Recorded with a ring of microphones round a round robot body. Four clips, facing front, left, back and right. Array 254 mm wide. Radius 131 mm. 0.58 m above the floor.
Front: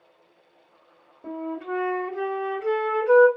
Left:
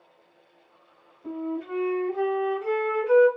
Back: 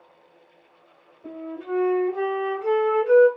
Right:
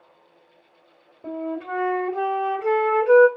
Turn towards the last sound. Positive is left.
turn(degrees=-70)